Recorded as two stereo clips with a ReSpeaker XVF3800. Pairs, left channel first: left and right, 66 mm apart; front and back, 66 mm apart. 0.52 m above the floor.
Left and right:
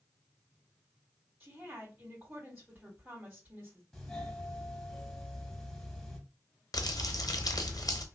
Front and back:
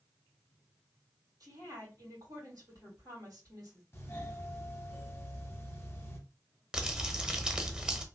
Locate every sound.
1.4 s a woman speaking: 155° right, 2.5 m
3.9 s a doorbell: 15° left, 1.2 m
6.7 s crumpling: 105° left, 0.7 m